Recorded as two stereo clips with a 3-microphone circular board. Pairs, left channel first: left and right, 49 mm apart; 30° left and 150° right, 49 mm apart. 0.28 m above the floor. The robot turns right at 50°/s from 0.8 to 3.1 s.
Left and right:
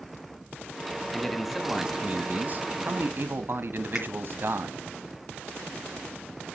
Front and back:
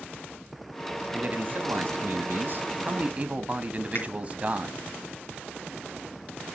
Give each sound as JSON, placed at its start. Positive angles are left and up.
{"t": 1.1, "sound": "a man speaking", "azimuth_deg": 165, "distance_m": 1.4}
{"t": 4.0, "sound": "a finger snap", "azimuth_deg": -5, "distance_m": 4.0}